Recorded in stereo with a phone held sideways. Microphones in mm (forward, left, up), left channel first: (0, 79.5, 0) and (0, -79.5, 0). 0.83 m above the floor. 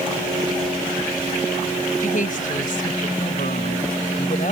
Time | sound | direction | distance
2.0 | a woman speaking | 60° left (ahead or behind) | ?